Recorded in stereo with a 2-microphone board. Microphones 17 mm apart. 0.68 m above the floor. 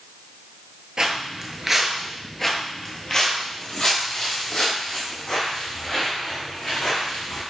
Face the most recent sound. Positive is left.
turn(degrees=60)  # may be behind; listen again after turning